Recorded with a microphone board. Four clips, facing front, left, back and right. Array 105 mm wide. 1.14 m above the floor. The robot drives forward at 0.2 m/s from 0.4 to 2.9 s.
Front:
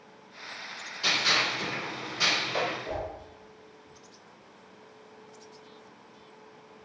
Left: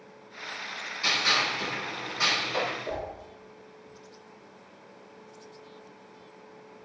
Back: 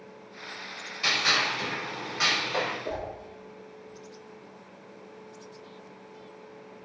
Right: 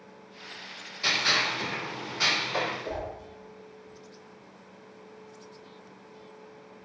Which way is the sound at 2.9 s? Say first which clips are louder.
Even, back 1 dB; 165° right.